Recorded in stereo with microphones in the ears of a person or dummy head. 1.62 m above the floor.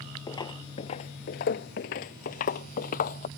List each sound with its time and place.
0.3 s footsteps: 20° left (ahead or behind); by 3.3 s 45° left (ahead or behind)